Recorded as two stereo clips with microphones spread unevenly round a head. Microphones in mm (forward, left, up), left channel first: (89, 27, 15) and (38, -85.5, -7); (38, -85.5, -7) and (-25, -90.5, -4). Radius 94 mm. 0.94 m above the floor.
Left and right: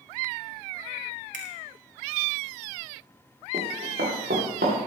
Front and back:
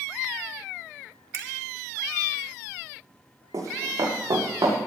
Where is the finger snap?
155° right, 2 m.